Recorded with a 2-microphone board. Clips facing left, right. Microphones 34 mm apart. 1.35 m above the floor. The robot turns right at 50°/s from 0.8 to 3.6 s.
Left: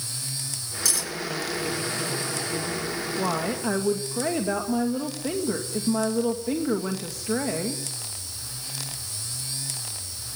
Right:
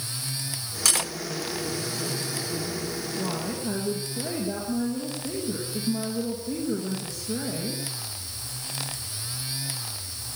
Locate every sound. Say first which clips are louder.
0.8 s cutlery clinking: right 3 dB; 55° right (ahead or behind), 1.0 m; by 1.1 s 45° right (ahead or behind), 1.0 m
3.2 s a woman speaking: left 5 dB; 50° left (ahead or behind), 2 m; by 7.8 s 70° left (ahead or behind), 2 m